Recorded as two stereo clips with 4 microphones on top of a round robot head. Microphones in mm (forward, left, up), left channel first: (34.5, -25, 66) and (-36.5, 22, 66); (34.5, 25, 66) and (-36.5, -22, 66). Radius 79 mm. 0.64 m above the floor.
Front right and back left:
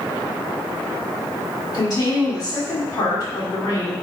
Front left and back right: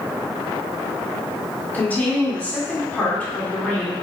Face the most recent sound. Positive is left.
turn(degrees=-30)